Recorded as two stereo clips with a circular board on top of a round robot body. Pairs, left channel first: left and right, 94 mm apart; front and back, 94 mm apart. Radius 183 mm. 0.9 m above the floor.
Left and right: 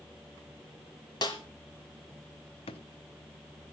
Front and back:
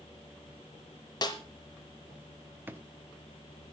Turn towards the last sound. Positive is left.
turn(degrees=110)